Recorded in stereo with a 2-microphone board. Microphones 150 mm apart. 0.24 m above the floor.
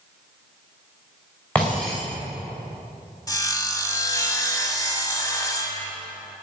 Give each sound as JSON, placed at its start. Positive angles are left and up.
{"t": 1.6, "sound": "breaking glass", "side_deg": 10, "distance_m": 4.5}
{"t": 3.3, "sound": "sawing", "side_deg": 25, "distance_m": 1.0}